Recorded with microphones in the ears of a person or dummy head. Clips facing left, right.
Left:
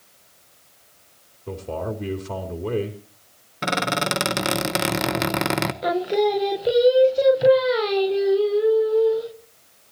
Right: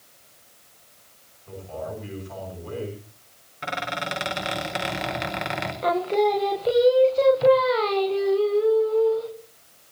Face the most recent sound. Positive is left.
turn(degrees=15)  # may be behind; listen again after turning